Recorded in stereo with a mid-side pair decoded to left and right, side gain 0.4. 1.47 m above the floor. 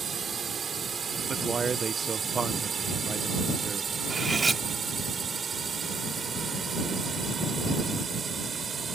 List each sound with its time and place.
0.0 s a drone: 45° right
1.3 s a man speaking: 40° right
4.1 s cutlery clinking: 35° right